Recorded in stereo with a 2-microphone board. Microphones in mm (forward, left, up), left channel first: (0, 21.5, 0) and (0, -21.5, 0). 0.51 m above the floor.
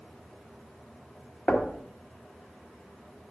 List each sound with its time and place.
1.5 s knocking: 25° left (ahead or behind), 1.1 m